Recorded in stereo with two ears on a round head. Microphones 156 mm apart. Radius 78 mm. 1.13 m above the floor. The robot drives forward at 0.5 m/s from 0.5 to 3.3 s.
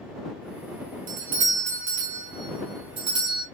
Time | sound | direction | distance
1.1 | a doorbell | 50° right (ahead or behind) | 1.2 m